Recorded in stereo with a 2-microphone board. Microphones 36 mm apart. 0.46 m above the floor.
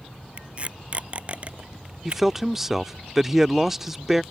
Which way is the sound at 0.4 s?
40° right (ahead or behind).